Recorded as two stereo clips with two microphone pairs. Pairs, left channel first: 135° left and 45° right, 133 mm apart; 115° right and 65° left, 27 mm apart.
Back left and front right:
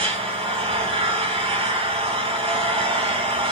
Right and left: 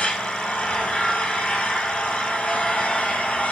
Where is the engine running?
85° right, 4 m.